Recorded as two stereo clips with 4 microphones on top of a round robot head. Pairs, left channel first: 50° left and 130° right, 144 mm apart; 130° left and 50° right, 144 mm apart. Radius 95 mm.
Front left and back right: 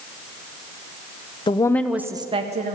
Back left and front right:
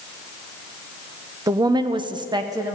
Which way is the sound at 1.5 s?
10° left.